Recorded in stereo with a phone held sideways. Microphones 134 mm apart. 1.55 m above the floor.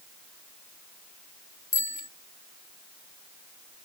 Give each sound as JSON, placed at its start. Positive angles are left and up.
{"t": 1.7, "sound": "a bicycle bell", "side_deg": 70}